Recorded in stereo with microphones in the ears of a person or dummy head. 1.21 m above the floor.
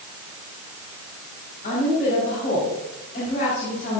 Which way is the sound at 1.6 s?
40° left (ahead or behind).